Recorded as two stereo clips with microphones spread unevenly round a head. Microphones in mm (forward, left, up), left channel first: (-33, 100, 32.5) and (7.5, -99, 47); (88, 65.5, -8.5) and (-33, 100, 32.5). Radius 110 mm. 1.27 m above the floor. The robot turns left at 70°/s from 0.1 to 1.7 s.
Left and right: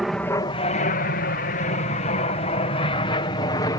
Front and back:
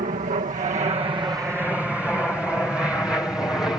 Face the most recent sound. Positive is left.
turn(degrees=45)